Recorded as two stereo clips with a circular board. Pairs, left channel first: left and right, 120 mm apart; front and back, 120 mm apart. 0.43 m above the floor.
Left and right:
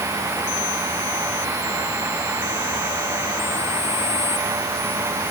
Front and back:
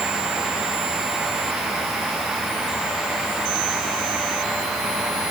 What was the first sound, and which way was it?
Only background noise.